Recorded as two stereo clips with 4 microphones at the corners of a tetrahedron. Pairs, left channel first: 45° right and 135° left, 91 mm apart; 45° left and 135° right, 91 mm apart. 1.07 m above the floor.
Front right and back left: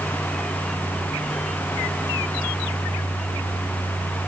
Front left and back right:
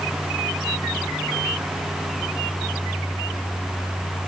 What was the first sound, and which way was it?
Only background noise.